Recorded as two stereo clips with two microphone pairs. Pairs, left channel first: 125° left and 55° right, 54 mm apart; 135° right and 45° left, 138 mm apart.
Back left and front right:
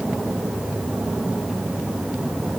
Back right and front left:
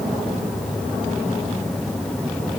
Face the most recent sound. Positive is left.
No sound to turn to.